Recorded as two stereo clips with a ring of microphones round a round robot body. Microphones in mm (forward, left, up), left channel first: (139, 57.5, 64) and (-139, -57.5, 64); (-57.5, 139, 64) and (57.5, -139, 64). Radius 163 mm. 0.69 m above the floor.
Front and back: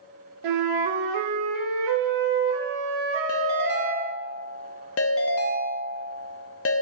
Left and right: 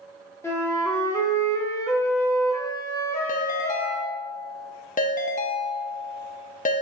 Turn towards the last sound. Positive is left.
turn(degrees=55)